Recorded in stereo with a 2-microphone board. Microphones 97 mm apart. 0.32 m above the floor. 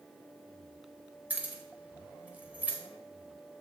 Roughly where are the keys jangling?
Centre.